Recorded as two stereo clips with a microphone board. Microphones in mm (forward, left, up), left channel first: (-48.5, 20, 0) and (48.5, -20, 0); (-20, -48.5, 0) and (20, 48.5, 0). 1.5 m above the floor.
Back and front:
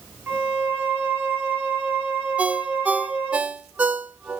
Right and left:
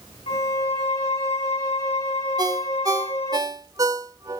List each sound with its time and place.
0.3 s a violin: 95° right, 3 m
2.4 s a ringtone: 45° left, 0.7 m